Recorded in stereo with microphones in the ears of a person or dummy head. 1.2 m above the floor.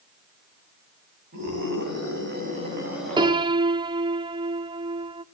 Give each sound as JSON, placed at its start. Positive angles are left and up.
{"t": 1.3, "sound": "a scream", "side_deg": -55, "distance_m": 10.0}
{"t": 3.2, "sound": "a piano", "side_deg": -20, "distance_m": 0.5}